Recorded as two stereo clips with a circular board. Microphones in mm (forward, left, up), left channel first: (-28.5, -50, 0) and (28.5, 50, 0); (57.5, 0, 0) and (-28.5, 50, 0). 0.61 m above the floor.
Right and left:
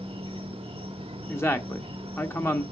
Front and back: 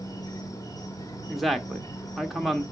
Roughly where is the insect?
Ahead left.